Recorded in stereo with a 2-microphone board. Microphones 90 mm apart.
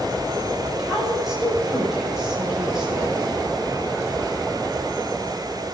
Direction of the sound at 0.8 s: 5° right (ahead or behind).